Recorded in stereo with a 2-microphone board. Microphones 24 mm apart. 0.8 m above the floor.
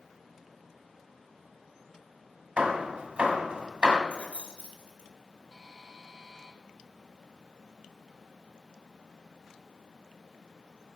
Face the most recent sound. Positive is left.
turn(degrees=-15)  # may be behind; listen again after turning